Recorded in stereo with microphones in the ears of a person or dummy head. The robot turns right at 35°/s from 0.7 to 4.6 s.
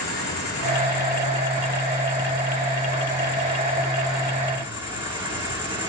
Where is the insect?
65° left, 2.5 m; by 5.9 s 160° right, 2.5 m.